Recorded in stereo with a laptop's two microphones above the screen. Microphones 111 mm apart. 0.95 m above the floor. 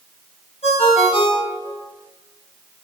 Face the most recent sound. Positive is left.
turn(degrees=60)  # may be behind; listen again after turning